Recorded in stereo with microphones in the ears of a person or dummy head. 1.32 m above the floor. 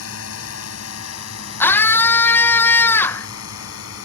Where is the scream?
15° left (ahead or behind).